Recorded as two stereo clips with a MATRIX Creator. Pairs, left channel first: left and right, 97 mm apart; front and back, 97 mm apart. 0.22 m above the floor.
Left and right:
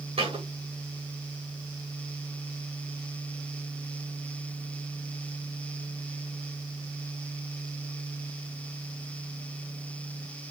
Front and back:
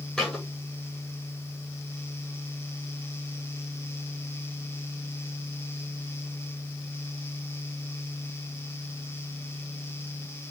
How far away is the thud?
About 5 m.